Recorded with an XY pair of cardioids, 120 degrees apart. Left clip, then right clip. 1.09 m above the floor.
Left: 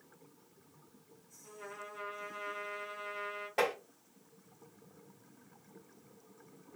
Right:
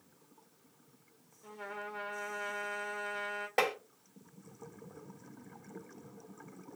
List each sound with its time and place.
1.4 s a trumpet: 50° right, 1.3 m
3.6 s tapping: 35° right, 1.6 m